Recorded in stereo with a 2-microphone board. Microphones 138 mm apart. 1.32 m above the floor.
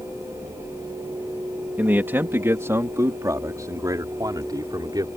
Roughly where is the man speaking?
Centre.